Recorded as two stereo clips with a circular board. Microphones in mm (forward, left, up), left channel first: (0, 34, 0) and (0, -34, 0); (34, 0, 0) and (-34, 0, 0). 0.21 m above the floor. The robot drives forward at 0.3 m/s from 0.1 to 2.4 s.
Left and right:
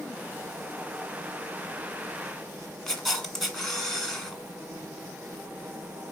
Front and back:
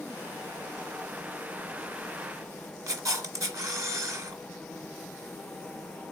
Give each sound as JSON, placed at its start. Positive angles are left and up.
{"t": 2.9, "sound": "a camera shutter", "azimuth_deg": 180, "distance_m": 1.5}